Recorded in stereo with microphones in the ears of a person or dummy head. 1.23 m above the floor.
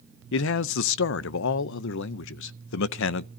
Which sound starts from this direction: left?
A man speaking, at 0.3 s.